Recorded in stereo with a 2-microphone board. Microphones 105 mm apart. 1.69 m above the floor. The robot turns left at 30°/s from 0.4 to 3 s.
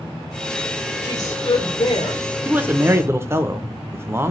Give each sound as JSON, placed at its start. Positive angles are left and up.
{"t": 1.0, "sound": "a woman speaking", "azimuth_deg": 140, "distance_m": 1.0}
{"t": 2.5, "sound": "a man speaking", "side_deg": -15, "distance_m": 0.5}